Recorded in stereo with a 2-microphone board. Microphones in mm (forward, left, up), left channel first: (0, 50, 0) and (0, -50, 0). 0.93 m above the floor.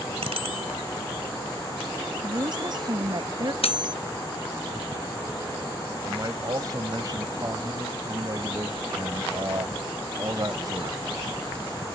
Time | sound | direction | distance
0.2 | a bicycle bell | 85° right | ?
2.2 | a woman speaking | 45° right (ahead or behind) | ?
3.6 | cutlery clinking | 75° left (ahead or behind) | ?
6.1 | a man speaking | 40° right (ahead or behind) | ?